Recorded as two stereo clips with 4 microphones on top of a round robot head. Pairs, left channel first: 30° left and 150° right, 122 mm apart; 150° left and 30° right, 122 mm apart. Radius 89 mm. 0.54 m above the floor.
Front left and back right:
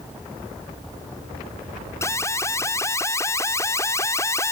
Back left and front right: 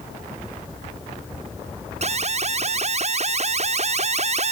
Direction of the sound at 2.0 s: 35° right.